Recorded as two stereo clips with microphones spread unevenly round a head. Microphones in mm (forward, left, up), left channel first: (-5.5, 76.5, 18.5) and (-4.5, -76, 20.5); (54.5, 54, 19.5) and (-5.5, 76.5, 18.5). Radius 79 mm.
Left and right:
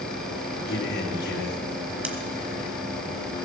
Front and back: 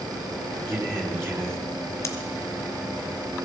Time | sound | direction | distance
0.7 | a man speaking | 110° left | 3.5 m
2.0 | scissors | 15° right | 1.5 m